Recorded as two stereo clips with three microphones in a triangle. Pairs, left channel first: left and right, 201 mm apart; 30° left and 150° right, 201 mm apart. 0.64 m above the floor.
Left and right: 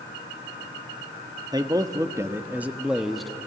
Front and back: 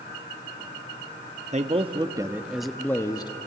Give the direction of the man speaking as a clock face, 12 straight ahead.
5 o'clock.